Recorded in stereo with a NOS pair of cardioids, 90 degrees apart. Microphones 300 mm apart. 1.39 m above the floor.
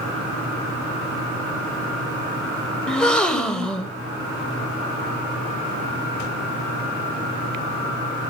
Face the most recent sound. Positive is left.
turn(degrees=5)